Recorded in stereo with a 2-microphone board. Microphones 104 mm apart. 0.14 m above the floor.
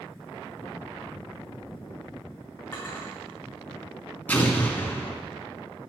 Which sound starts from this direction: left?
A drawer, at 2.7 s.